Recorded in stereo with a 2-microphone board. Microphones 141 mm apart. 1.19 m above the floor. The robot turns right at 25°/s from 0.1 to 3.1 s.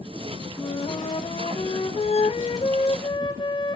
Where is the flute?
60° left, 0.6 m; by 3.8 s 120° left, 0.6 m.